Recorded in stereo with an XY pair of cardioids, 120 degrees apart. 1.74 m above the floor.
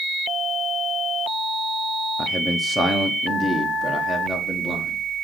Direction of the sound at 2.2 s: 5° right.